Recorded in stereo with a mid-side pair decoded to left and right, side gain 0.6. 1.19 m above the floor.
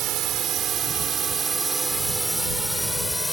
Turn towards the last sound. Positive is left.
turn(degrees=10)